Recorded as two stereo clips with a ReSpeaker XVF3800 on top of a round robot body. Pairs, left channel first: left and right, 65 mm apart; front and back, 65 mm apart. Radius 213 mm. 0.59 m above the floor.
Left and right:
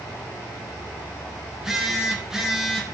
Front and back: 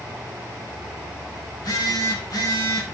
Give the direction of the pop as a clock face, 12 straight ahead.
No pop in this recording.